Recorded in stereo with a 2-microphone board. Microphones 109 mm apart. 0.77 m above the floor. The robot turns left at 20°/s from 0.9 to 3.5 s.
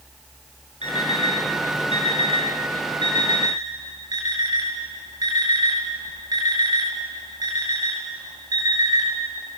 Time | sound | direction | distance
0.8 | an alarm clock | 90° right | 5 m